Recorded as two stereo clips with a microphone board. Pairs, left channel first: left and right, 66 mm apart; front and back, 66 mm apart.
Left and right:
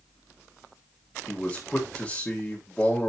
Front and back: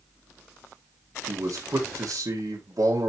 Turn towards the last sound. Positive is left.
turn(degrees=165)